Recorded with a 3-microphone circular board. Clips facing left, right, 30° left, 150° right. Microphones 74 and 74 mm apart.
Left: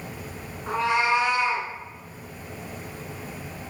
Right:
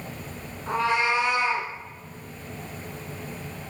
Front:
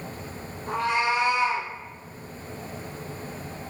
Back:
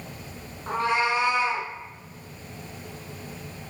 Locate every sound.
0.7 s a cat meowing: 165° left, 1.9 m